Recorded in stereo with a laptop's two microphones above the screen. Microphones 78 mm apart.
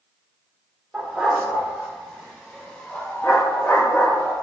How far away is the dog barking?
About 1.5 m.